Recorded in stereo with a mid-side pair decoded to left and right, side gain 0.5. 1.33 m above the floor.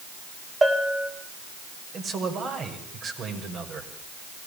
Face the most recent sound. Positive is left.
turn(degrees=-50)